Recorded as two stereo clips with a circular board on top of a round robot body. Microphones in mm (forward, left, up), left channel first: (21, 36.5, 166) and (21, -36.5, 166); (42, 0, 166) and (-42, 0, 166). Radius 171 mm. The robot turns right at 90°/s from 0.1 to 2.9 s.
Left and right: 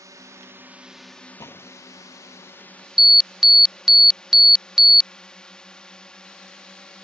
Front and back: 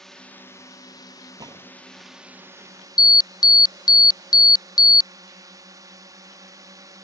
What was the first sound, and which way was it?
A drone, 85° right.